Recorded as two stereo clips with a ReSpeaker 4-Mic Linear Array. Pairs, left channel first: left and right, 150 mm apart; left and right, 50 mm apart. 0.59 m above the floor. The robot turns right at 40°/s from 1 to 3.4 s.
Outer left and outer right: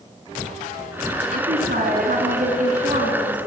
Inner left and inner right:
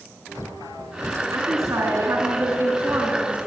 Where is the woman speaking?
110° right, 6.5 m; by 3.4 s 30° right, 6.5 m.